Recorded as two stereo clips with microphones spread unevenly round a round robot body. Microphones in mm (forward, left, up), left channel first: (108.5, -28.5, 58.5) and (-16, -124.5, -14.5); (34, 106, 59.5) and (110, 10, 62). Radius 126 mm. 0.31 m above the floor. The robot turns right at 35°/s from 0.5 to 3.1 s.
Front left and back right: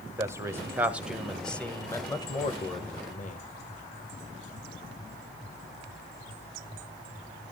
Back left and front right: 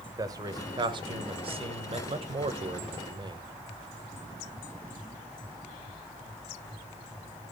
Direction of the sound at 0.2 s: 105° right.